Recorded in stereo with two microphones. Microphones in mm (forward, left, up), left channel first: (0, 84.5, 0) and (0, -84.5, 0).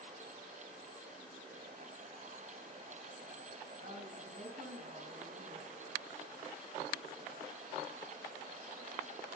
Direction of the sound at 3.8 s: 85° right.